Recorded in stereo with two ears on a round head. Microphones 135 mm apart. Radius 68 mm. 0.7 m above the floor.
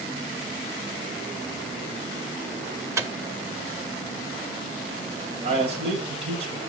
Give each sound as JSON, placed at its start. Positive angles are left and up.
{"t": 3.0, "sound": "a microwave", "side_deg": -20, "distance_m": 0.7}
{"t": 5.4, "sound": "a man speaking", "side_deg": -40, "distance_m": 3.0}